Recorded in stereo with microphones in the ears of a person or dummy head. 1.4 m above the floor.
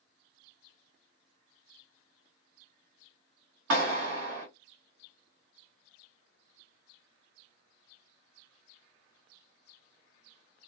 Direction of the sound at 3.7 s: 85° right.